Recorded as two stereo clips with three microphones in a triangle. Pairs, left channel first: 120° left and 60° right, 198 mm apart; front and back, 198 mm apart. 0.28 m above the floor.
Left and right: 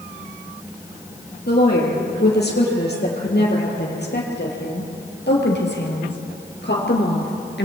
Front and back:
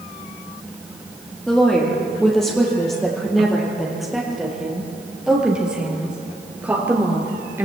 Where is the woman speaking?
85° left, 7 m; by 7.7 s 100° left, 4 m.